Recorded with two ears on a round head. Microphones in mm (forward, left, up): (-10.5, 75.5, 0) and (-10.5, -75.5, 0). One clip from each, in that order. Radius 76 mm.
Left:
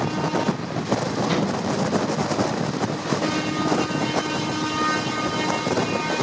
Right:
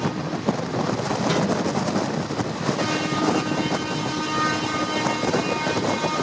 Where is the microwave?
35° right (ahead or behind), 1.0 m.